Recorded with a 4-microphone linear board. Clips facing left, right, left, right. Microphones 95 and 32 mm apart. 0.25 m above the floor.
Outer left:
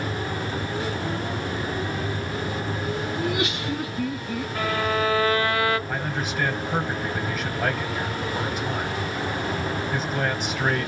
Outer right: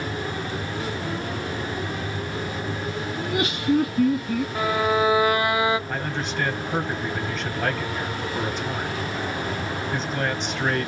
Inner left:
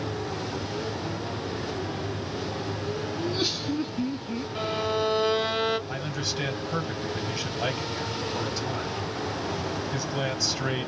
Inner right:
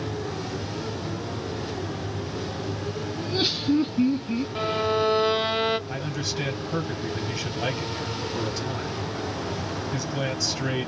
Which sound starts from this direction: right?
Laughter, at 3.2 s.